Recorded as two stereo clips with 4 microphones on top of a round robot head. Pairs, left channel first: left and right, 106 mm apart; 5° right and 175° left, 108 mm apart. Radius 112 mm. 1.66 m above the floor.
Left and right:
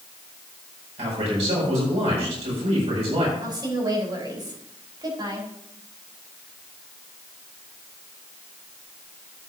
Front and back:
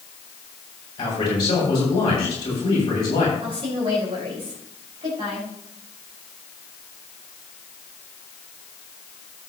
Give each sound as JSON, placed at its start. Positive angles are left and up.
{"t": 1.0, "sound": "a man speaking", "azimuth_deg": -60, "distance_m": 7.0}
{"t": 3.4, "sound": "a woman speaking", "azimuth_deg": -140, "distance_m": 5.0}